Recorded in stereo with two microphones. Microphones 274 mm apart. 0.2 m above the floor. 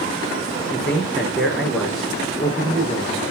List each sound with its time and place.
0.7 s a man speaking: centre (ahead or behind), 3.5 m